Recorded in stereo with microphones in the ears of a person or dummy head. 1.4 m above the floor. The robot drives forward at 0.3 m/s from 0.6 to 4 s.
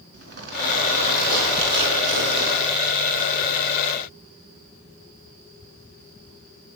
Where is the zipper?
55° right (ahead or behind), 4.5 m; by 3.2 s 65° right (ahead or behind), 4.5 m.